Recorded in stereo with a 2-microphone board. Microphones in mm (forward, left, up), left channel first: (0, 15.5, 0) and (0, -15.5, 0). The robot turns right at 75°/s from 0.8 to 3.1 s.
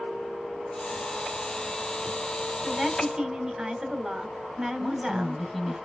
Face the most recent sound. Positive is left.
turn(degrees=0)  # may be behind; listen again after turning